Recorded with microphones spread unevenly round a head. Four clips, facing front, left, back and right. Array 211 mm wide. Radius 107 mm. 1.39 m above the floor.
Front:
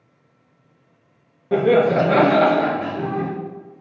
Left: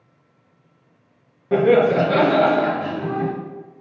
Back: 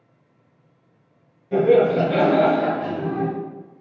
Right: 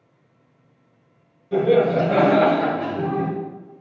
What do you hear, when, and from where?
1.5 s laughter: 40° left, 1.0 m; by 3.3 s 75° right, 1.3 m